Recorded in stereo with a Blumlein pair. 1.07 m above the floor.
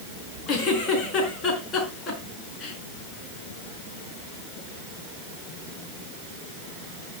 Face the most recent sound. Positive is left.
turn(degrees=30)